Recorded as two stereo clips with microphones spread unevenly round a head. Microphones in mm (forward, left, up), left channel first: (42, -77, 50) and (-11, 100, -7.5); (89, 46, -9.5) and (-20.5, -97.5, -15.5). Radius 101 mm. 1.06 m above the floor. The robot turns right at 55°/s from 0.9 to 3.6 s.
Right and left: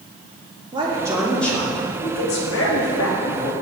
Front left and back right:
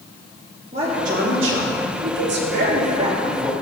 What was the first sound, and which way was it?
A man speaking, 170° left.